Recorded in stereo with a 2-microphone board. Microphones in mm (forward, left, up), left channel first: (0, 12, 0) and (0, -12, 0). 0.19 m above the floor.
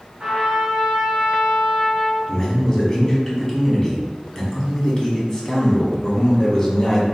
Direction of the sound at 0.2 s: 50° right (ahead or behind).